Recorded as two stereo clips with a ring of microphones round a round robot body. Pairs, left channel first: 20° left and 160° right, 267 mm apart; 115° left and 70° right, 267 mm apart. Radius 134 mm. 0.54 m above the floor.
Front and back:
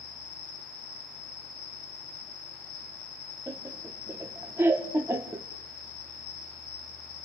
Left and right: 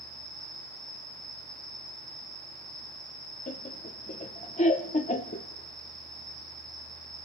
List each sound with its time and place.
0.0 s an insect: 25° left, 9 m
3.5 s laughter: 130° left, 0.7 m